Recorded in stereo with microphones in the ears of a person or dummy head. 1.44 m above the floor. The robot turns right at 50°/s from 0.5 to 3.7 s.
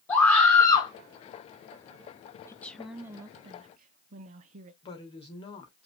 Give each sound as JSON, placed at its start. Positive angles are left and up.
{"t": 0.1, "sound": "a scream", "side_deg": 15, "distance_m": 3.0}
{"t": 2.5, "sound": "a woman speaking", "azimuth_deg": 160, "distance_m": 0.7}
{"t": 4.8, "sound": "a woman speaking", "side_deg": 30, "distance_m": 2.0}